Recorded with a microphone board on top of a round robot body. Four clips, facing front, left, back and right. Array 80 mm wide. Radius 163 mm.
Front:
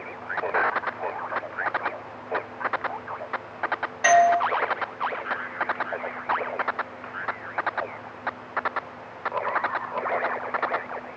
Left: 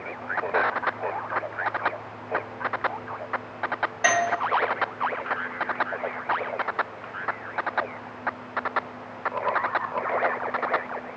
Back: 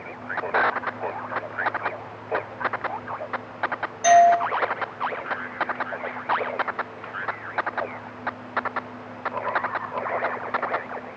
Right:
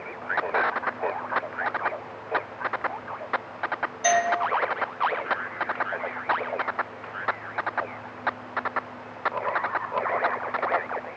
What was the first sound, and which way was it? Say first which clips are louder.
A doorbell: right 1 dB, back 3 dB; 60° left.